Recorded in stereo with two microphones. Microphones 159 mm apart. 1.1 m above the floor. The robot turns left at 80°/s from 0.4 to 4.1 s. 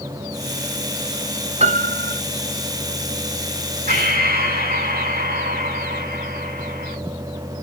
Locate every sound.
1.6 s a piano: 40° right, 0.8 m; by 2.2 s 90° right, 0.8 m
3.9 s breathing: 75° right (ahead or behind), 4 m; by 7.0 s 80° right, 4 m